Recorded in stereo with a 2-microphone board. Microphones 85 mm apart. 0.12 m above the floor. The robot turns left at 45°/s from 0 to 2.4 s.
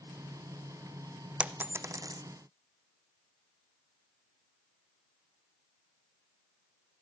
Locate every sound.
1.4 s a dropped coin: 15° right (ahead or behind), 0.6 m; by 2.2 s 50° right (ahead or behind), 0.6 m